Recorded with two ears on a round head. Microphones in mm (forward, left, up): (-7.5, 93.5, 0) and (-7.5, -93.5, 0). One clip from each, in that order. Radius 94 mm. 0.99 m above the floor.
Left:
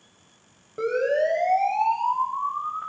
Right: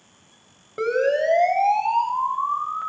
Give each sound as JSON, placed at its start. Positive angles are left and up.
{"t": 0.8, "sound": "a siren", "side_deg": -65, "distance_m": 9.0}